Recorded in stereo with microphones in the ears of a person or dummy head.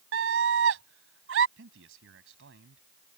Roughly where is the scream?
Right.